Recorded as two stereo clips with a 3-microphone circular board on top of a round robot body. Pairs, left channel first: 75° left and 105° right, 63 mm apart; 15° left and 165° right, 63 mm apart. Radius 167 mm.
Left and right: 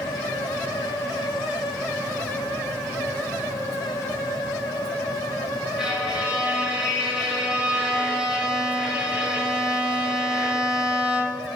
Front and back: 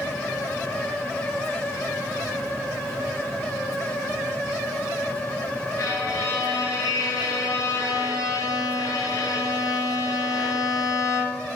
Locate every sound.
5.8 s a violin: 25° right, 3.5 m